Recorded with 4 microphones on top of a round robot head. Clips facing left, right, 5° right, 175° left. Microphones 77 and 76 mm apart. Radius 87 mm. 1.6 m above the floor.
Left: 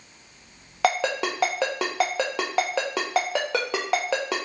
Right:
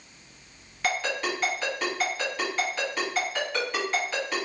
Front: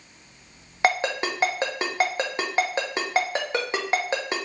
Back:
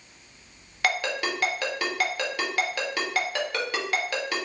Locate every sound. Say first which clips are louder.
0.8 s a ringtone: left 5 dB, front 4 dB; 50° left, 0.6 m